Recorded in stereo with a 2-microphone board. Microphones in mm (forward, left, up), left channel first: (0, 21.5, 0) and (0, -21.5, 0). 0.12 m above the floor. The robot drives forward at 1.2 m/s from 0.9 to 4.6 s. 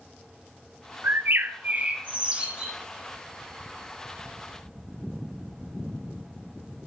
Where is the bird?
60° right (ahead or behind), 0.6 m; by 2.7 s 15° right (ahead or behind), 2 m.